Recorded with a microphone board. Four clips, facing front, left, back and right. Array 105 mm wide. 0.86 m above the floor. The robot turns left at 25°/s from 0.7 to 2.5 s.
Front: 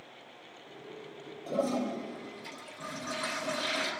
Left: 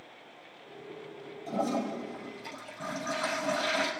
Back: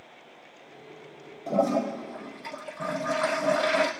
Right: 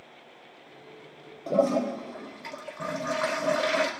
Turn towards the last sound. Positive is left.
turn(degrees=-125)